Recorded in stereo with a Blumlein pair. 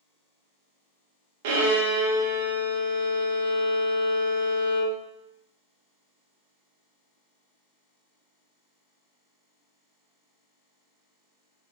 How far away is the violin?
About 0.7 m.